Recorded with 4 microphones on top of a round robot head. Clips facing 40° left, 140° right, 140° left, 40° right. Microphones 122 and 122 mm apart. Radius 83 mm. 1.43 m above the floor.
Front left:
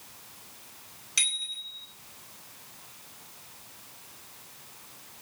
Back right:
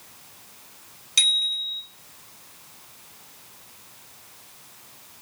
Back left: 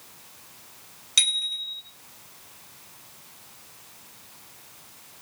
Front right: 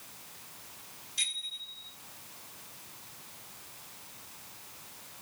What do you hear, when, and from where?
1.2 s a bicycle bell: 150° left, 10 m